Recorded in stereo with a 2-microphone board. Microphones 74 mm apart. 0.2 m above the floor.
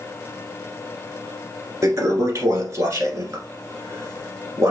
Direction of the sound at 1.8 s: 45° right (ahead or behind).